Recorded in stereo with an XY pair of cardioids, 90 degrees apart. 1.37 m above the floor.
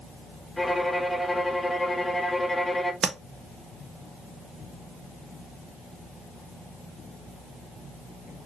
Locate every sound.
0.6 s a violin: 10° left, 0.8 m
3.0 s tapping: 50° right, 0.9 m